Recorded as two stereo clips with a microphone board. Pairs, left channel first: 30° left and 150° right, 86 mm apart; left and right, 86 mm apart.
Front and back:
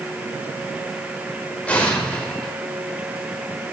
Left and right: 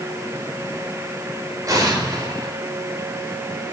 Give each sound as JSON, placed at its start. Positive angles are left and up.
{"t": 1.7, "sound": "an explosion", "azimuth_deg": -45, "distance_m": 4.0}